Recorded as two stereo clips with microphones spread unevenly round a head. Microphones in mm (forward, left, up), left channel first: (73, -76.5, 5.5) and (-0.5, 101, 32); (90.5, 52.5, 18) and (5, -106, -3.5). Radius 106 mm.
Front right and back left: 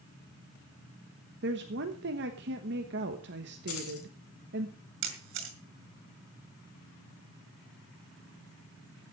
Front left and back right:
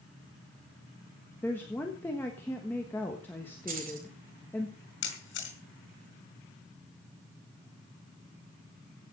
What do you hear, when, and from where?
1.4 s a woman speaking: 145° left, 1.2 m
3.7 s keys jangling: 80° right, 3.5 m
5.0 s a camera shutter: 100° left, 4 m